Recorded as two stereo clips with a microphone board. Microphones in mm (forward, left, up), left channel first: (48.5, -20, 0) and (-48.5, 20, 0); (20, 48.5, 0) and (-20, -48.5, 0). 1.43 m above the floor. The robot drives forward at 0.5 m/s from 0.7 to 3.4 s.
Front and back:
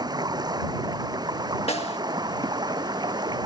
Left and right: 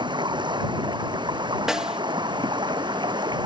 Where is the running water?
155° right.